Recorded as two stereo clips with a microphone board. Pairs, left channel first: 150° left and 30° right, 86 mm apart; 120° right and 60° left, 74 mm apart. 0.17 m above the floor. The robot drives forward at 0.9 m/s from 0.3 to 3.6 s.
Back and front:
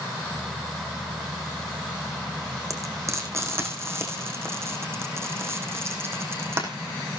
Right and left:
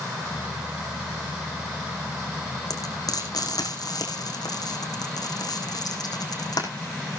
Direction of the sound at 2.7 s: 85° right.